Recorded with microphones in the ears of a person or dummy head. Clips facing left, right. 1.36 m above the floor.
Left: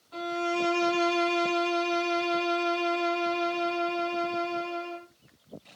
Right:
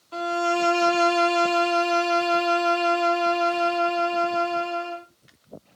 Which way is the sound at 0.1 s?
70° right (ahead or behind).